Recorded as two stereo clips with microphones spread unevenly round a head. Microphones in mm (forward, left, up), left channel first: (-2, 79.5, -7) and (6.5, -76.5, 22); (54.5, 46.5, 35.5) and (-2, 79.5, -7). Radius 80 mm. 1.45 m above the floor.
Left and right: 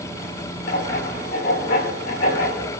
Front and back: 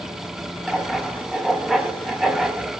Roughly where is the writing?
Left.